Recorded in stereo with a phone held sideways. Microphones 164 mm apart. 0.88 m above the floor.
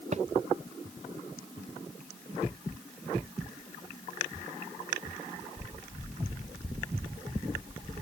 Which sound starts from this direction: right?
A thud, at 0.1 s.